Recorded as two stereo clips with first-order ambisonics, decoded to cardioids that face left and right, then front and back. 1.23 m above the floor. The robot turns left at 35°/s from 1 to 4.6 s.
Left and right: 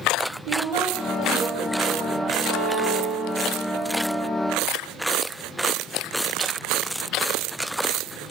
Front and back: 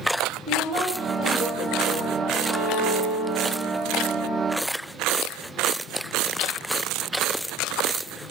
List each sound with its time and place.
0.5 s a woman speaking: 125° right, 2 m; by 2.3 s 175° right, 2 m
2.4 s a violin: 135° right, 1.0 m; by 3.6 s 175° right, 1.0 m